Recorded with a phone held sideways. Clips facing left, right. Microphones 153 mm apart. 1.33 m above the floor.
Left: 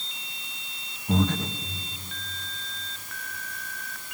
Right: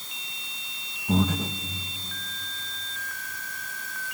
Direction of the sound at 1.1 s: 10° right (ahead or behind).